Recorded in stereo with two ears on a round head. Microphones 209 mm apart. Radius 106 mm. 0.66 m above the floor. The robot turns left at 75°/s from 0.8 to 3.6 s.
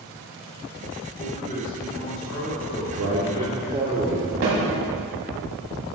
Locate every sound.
1.2 s a man speaking: straight behind, 3.5 m; by 3.7 s 5° right, 3.5 m
2.7 s a man speaking: 90° right, 1.4 m; by 4.3 s 155° right, 1.4 m
4.4 s a snare drum: 65° right (ahead or behind), 3.5 m